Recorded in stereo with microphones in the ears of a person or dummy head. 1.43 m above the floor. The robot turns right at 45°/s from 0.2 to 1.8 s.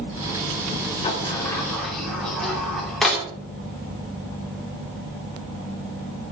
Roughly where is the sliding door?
Left.